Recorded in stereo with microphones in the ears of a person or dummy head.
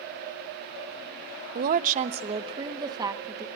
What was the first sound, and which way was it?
A woman speaking, 55° right (ahead or behind).